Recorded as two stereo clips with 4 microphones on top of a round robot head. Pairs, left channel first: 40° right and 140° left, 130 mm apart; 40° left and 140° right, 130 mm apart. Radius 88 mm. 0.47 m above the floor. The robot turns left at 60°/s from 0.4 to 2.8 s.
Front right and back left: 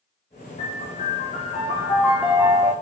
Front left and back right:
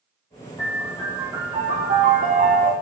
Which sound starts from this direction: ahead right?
A piano, at 0.6 s.